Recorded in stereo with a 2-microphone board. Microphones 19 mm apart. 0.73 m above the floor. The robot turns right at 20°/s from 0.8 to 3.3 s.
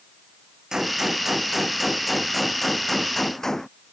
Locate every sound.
0.7 s a gunshot: 30° right; by 3.7 s 20° left